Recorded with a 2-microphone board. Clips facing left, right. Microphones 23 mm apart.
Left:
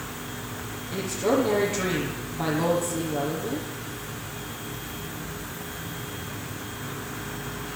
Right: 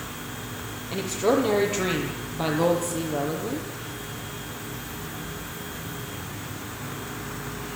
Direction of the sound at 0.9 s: 40° right (ahead or behind).